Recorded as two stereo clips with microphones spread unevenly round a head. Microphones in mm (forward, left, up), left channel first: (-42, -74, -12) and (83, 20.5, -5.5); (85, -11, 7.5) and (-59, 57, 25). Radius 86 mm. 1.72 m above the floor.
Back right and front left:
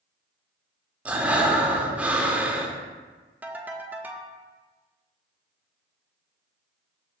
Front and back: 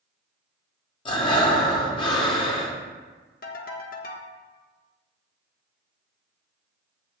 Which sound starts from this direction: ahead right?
A ringtone, at 3.4 s.